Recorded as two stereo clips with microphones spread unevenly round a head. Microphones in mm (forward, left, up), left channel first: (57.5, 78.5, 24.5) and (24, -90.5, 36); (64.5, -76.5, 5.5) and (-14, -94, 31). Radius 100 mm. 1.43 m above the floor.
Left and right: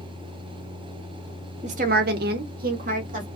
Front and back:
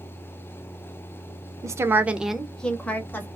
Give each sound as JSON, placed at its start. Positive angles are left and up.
{"t": 1.6, "sound": "a woman speaking", "azimuth_deg": -150, "distance_m": 0.5}